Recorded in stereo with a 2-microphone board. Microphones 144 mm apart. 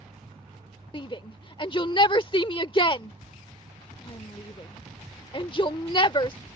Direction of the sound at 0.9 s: 35° left (ahead or behind).